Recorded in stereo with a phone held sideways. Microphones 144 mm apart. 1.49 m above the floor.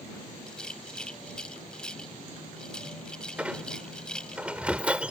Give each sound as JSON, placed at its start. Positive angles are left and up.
{"t": 0.5, "sound": "a rattle", "side_deg": 5}
{"t": 3.4, "sound": "a squeak", "side_deg": -10}